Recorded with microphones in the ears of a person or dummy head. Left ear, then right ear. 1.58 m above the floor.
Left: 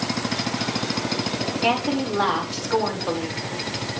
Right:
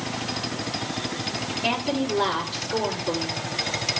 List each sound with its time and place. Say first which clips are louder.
1.6 s a woman speaking: left 3 dB; 50° left (ahead or behind), 5 m